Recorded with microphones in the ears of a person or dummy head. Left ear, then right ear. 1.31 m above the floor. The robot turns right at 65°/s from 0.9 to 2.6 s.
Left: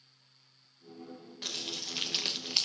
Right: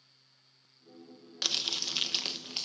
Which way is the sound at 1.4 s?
55° right.